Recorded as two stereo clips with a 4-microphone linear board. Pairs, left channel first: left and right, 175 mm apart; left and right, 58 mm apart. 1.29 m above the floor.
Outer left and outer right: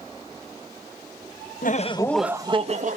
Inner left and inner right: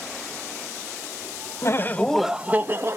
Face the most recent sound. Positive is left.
turn(degrees=-45)  # may be behind; listen again after turning